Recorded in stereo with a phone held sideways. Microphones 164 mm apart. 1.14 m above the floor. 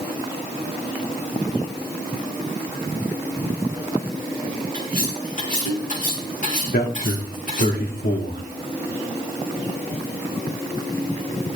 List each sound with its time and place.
4.7 s cutlery clinking: 55° left (ahead or behind), 9 m
6.7 s a man speaking: 65° left (ahead or behind), 3 m